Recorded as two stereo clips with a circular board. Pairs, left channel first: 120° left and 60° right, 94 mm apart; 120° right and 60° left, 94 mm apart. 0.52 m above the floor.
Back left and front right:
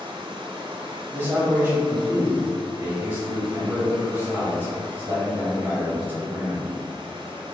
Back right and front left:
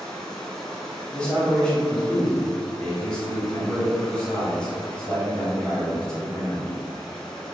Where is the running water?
35° right, 1.1 m.